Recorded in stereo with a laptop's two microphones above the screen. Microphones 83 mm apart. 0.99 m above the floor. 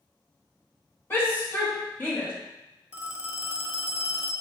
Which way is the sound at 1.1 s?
30° left (ahead or behind).